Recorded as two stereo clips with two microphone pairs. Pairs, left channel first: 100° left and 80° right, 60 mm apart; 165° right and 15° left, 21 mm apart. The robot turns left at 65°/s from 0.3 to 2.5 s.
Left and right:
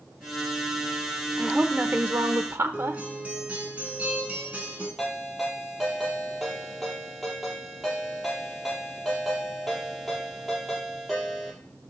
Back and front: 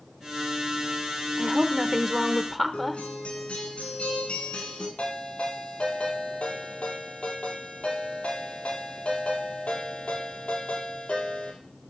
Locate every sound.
1.4 s a woman speaking: 10° right, 1.0 m; by 3.0 s 85° right, 1.0 m
2.7 s a guitar: 150° right, 3.5 m
5.0 s a ringtone: 170° right, 5.5 m